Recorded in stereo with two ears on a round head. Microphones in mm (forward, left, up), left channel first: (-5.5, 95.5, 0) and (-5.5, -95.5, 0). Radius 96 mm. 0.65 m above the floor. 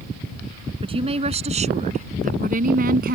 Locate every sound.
0.8 s a woman speaking: 30° right (ahead or behind); by 3.2 s 50° right (ahead or behind)